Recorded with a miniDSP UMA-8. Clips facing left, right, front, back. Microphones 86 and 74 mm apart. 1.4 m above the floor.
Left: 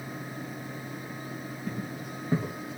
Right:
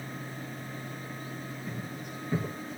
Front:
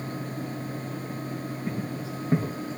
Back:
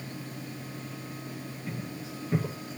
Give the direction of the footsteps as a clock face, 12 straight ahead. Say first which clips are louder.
Left 3 dB, front 5 dB; 11 o'clock.